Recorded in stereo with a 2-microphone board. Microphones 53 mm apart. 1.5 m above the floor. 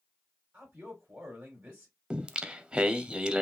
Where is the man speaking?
30° right (ahead or behind), 3 m.